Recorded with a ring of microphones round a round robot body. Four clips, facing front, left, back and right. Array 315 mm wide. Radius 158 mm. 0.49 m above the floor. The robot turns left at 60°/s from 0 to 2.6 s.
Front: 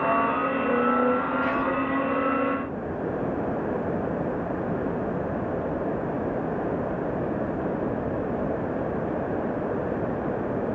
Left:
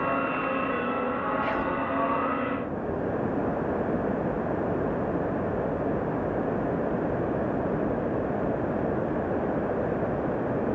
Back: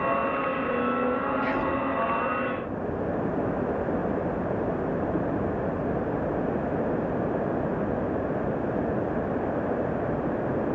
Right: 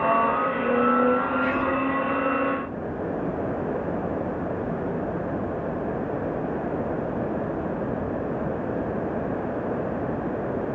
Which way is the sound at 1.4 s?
120° right.